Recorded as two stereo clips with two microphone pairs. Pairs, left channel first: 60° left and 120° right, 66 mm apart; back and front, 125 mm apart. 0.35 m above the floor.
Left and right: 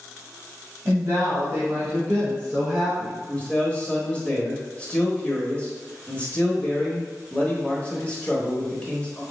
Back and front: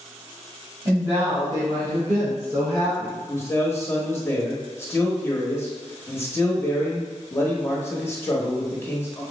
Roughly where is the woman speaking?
Right.